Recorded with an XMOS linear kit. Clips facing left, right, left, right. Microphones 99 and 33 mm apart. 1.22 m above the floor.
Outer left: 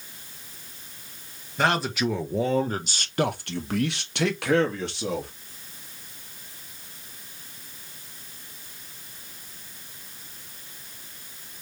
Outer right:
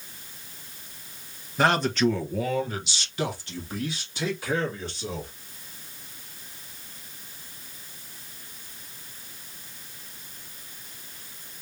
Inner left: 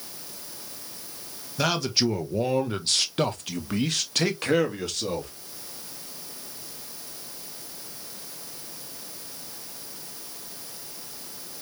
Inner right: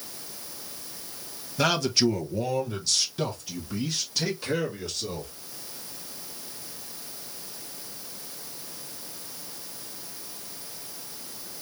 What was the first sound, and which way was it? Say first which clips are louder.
A man speaking: outer right 2 dB, inner right 1 dB; 5° right (ahead or behind).